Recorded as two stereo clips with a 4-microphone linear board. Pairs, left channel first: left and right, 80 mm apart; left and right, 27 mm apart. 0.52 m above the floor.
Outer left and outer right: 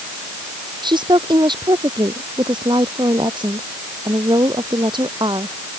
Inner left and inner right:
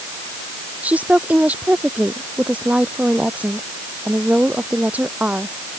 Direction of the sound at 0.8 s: 85° right.